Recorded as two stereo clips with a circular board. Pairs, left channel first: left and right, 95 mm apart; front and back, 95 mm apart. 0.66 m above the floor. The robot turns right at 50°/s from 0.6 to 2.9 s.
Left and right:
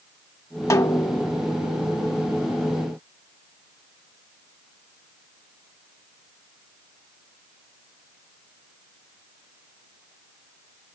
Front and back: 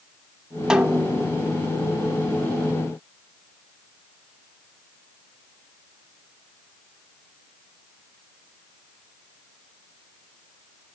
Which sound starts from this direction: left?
A snare drum, at 0.7 s.